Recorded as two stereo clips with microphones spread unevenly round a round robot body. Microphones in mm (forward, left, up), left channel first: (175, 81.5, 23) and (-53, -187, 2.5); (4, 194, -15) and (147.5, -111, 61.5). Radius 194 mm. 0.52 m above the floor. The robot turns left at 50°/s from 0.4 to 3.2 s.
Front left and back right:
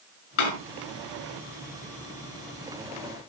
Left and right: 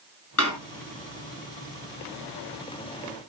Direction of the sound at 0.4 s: 70° left.